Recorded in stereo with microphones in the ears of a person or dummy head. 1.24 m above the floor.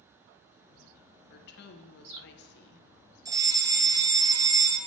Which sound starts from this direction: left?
A woman speaking, at 1.3 s.